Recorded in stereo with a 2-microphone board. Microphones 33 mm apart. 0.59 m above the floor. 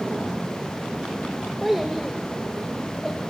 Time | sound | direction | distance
1.6 | a child speaking | centre (ahead or behind) | 1.6 m